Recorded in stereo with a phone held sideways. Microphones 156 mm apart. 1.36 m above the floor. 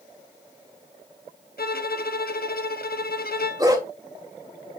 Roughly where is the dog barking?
Right.